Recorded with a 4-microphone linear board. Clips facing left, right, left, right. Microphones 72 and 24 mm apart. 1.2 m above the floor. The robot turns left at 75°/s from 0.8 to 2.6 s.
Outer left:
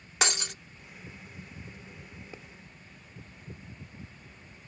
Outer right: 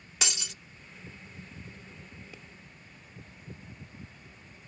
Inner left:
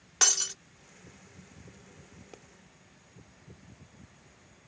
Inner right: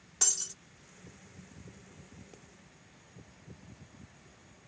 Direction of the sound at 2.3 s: 30° left (ahead or behind).